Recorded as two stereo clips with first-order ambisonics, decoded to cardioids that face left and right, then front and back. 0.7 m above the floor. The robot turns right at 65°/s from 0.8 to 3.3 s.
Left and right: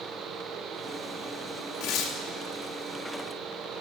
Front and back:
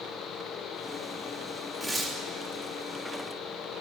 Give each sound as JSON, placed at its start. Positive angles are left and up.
{"t": 1.8, "sound": "tearing paper", "azimuth_deg": 95, "distance_m": 1.0}